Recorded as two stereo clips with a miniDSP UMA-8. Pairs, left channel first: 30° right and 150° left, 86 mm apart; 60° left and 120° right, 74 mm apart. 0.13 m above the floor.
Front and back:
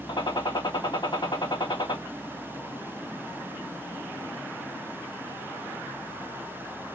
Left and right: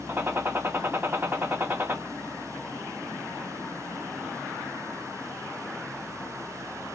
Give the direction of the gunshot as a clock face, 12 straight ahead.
2 o'clock.